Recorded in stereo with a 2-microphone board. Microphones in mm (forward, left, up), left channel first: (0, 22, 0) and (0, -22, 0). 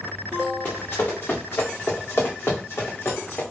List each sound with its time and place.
0.7 s running footsteps: 55° left (ahead or behind), 1.9 m; by 3.4 s 60° left (ahead or behind), 1.4 m